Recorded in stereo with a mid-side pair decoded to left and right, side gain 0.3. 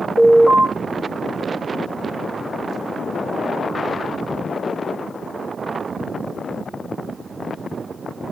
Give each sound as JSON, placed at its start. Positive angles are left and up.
{"t": 0.2, "sound": "an alarm", "azimuth_deg": 60, "distance_m": 1.8}